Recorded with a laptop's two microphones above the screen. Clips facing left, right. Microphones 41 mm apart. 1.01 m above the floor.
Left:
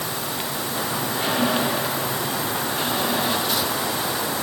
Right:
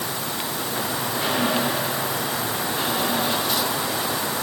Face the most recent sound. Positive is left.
No sound to turn to.